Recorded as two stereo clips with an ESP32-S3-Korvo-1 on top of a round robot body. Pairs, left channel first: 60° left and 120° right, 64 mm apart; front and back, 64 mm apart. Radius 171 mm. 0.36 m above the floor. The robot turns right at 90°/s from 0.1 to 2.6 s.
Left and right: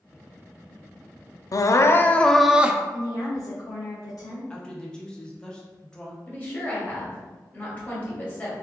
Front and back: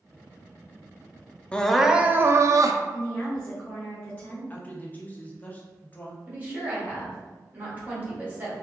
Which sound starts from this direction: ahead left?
A woman speaking, at 2.9 s.